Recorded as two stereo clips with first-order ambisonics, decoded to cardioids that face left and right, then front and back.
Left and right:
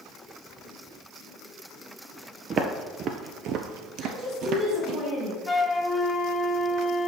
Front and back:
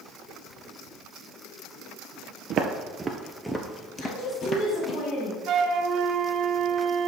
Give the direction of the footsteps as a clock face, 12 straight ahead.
5 o'clock.